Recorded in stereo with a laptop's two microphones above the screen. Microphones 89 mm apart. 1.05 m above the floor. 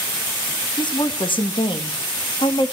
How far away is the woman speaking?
About 1.3 m.